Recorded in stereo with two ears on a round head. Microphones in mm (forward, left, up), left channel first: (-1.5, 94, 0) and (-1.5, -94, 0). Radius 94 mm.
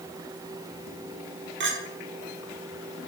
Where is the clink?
60° right (ahead or behind), 1.5 m.